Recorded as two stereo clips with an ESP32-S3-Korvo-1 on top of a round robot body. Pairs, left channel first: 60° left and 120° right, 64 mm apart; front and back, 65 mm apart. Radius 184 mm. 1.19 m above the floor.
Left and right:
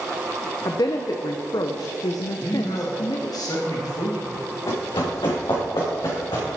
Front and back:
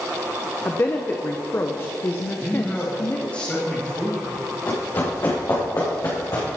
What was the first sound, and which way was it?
A woman speaking, 55° left.